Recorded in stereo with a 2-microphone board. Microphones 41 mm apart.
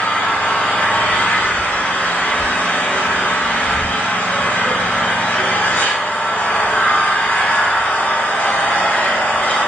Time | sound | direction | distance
0.0 | an engine running | 40° left (ahead or behind) | 1.2 m